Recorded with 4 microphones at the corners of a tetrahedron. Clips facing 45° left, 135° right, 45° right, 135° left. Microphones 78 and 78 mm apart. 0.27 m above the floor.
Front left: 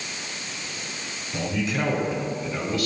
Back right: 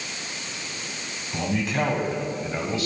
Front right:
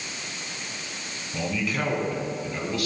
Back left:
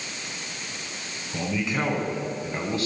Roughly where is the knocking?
No knocking in this recording.